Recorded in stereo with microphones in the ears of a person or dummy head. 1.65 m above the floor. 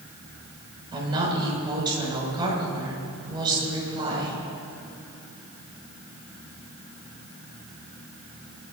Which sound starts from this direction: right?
A woman speaking, at 0.9 s.